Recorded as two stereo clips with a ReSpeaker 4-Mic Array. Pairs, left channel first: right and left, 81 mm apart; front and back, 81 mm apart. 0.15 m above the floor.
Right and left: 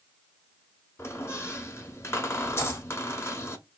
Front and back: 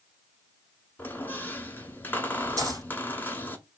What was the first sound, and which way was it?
A squeak, 55° right.